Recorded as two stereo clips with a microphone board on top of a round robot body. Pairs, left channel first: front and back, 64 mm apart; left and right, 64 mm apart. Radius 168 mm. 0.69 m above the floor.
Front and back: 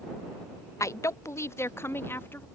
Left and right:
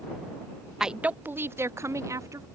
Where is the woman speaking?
10° right; by 2.5 s 55° right.